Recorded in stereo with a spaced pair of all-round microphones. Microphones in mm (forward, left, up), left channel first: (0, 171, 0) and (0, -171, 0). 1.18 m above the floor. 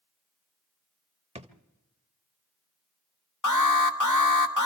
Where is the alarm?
60° left (ahead or behind), 1.6 m.